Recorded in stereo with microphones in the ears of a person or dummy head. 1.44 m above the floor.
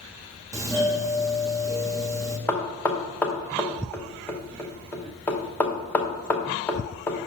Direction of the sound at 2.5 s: 10° left (ahead or behind).